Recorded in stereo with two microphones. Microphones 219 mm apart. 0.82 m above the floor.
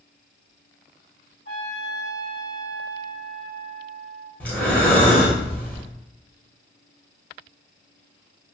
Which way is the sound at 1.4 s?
65° right (ahead or behind).